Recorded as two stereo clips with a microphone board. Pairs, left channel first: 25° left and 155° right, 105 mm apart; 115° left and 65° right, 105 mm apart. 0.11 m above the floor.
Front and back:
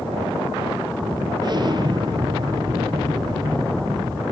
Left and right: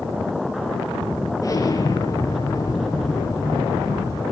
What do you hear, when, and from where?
1.4 s an explosion: 165° left, 2.5 m